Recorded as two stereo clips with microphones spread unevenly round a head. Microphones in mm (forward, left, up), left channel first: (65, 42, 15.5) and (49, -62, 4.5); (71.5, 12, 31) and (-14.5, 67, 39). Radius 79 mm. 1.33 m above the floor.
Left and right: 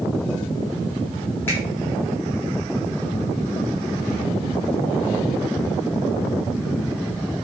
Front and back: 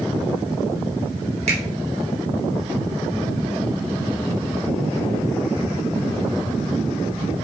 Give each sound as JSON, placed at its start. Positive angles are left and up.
{"t": 1.5, "sound": "a finger snap", "azimuth_deg": 160, "distance_m": 3.0}